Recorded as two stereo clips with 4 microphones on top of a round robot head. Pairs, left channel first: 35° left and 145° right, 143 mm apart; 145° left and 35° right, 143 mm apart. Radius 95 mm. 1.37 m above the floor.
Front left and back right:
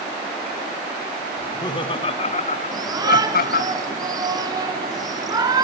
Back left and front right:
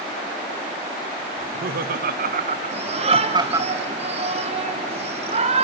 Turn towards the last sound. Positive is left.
turn(degrees=-80)